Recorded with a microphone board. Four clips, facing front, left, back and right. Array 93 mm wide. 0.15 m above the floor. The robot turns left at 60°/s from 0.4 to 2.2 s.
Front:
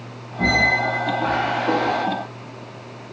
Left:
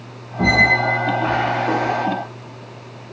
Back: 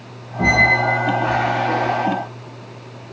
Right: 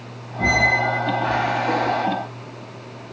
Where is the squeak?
105° left, 0.9 m; by 2.1 s 5° left, 0.9 m.